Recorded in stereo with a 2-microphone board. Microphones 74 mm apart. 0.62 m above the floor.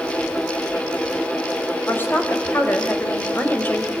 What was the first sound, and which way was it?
A woman speaking, 25° left (ahead or behind).